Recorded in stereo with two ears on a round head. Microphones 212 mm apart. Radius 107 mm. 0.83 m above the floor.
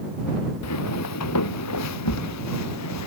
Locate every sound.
0.6 s footsteps: 80° left; by 3.1 s 85° left